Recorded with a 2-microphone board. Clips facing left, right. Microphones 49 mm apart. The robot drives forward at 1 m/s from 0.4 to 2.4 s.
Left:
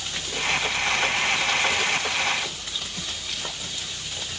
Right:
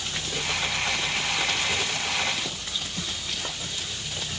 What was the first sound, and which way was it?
Only background noise.